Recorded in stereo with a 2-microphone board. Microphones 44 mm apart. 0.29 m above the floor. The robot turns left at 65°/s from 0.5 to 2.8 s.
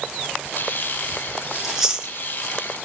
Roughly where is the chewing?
Centre.